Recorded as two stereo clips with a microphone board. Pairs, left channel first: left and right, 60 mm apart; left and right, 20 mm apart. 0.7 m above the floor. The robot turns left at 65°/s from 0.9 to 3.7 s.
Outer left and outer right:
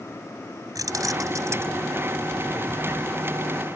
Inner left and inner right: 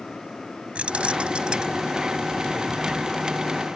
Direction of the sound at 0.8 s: 85° right.